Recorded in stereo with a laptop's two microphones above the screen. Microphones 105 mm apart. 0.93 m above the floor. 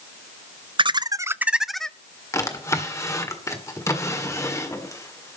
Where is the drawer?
30° left (ahead or behind), 1.6 m.